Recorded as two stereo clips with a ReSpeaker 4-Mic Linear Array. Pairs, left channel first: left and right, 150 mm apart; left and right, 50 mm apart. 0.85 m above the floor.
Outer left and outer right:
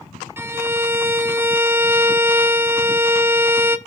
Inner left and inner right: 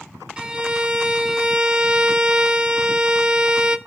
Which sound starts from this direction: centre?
A violin, at 0.4 s.